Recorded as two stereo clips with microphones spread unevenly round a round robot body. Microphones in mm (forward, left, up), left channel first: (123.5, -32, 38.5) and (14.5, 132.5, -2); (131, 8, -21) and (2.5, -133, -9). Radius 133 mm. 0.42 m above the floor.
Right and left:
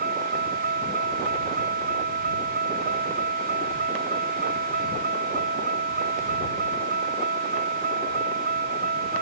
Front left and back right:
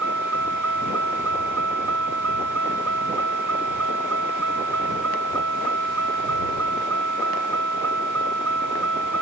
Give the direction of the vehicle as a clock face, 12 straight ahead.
6 o'clock.